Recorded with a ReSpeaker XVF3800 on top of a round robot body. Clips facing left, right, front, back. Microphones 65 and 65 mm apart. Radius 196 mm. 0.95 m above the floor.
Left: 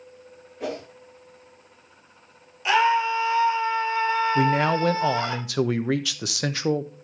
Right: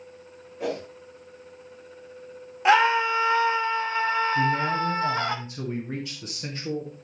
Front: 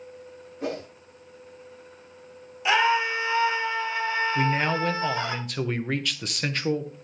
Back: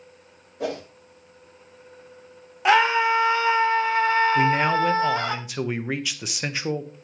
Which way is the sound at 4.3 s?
95° left.